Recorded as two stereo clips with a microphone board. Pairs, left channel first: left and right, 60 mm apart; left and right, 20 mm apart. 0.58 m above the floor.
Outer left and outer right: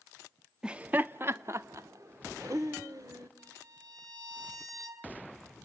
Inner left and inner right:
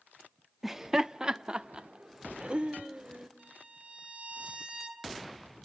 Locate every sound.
0.6 s laughter: 15° right (ahead or behind), 0.6 m; by 3.3 s 70° right (ahead or behind), 1.8 m
3.4 s a violin: 75° right (ahead or behind), 2.5 m